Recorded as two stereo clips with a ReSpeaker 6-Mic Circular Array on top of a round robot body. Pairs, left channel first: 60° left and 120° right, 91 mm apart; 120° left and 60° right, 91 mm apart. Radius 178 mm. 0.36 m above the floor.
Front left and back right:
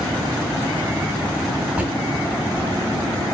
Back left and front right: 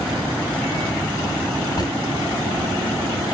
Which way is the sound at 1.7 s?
165° left.